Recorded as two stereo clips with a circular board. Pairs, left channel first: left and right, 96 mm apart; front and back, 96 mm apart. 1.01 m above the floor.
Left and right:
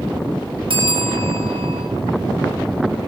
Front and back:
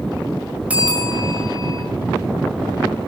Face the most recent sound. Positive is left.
turn(degrees=-105)